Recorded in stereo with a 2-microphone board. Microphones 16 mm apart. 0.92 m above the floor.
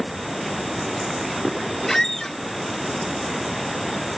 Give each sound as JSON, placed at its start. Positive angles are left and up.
{"t": 1.9, "sound": "a squeak", "side_deg": 30, "distance_m": 0.7}